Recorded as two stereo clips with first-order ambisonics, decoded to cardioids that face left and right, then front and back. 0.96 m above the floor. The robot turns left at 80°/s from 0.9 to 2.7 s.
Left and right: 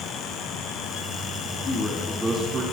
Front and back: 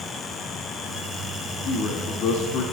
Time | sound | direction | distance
1.6 | a man speaking | 40° left | 2 m